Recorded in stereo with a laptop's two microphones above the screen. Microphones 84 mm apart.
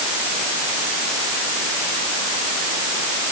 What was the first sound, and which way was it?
Only background noise.